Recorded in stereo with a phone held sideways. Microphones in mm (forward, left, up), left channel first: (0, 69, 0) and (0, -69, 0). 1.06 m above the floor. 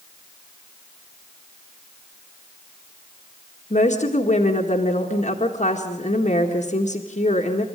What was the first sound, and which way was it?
A woman speaking, 60° left (ahead or behind).